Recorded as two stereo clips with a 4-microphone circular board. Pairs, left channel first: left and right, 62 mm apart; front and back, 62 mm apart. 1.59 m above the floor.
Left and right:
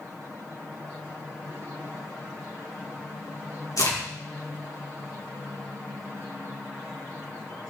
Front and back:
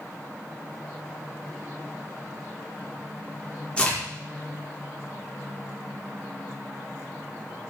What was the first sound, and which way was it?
A crack, 70° left.